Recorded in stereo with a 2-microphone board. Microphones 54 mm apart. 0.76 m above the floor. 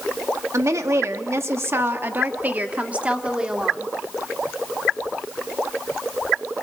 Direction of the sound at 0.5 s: 60° right (ahead or behind).